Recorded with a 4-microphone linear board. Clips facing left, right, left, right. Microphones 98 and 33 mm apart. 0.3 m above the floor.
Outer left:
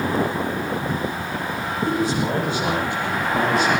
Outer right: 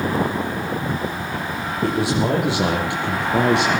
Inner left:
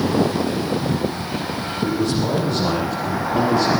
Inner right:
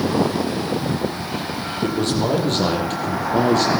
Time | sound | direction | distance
1.8 | a man speaking | 80° right | 9.5 m